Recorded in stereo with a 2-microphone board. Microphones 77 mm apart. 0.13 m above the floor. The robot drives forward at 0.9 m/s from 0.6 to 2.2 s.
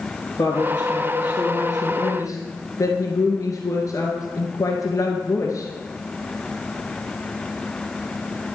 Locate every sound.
0.4 s a woman speaking: 45° left (ahead or behind), 1.7 m